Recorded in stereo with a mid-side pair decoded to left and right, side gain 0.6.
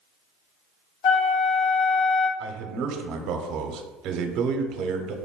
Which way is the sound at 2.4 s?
65° right.